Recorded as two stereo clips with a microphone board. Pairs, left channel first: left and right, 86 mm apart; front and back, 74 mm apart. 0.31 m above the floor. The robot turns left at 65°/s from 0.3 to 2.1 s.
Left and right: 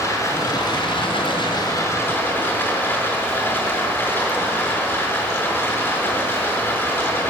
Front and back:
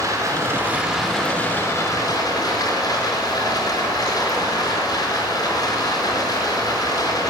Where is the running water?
140° left, 4 m; by 7.3 s 25° left, 4 m.